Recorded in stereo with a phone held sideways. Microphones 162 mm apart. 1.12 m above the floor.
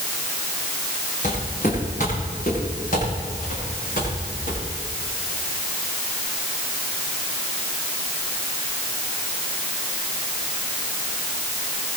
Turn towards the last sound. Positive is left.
turn(degrees=60)  # may be behind; listen again after turning